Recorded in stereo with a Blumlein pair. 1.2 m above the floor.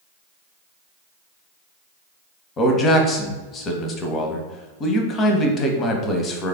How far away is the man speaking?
About 0.7 m.